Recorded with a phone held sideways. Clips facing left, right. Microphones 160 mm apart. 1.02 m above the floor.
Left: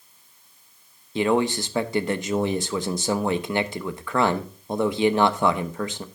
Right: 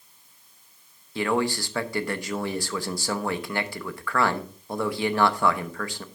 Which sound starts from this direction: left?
A man speaking, at 1.1 s.